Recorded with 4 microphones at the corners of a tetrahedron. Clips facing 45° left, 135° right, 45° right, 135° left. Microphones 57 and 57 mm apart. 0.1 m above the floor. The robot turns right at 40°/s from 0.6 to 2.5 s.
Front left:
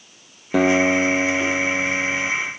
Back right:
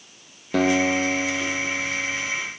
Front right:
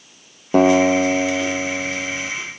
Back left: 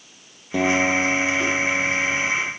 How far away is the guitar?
About 1.2 m.